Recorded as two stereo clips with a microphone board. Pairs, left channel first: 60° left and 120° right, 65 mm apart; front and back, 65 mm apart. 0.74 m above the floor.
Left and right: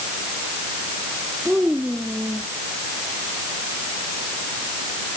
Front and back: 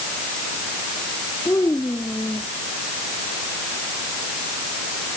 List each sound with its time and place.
1.4 s a child speaking: 45° right